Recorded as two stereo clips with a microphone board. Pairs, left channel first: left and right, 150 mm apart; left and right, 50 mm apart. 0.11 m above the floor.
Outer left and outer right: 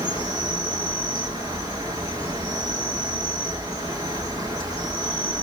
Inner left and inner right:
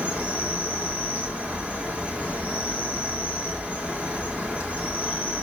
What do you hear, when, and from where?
0.0 s an insect: 25° right (ahead or behind), 8.5 m